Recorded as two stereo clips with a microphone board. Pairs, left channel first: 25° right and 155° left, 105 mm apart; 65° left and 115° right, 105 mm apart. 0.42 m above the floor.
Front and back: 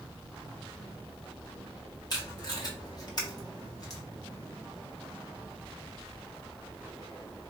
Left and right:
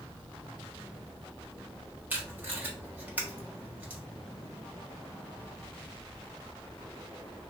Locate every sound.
2.1 s tape being pulled: 45° right, 1.3 m